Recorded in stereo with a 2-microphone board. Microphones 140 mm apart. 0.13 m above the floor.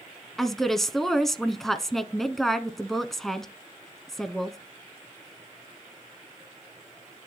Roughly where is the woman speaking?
Centre.